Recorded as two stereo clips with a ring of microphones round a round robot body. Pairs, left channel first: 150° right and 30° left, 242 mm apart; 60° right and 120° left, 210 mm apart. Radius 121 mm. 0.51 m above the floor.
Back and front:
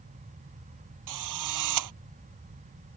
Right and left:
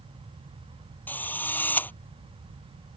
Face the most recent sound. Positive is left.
turn(degrees=20)